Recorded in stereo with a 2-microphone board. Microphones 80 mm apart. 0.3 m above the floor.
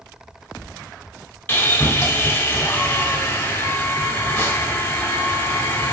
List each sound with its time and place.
1.5 s sawing: 20° left (ahead or behind), 1.3 m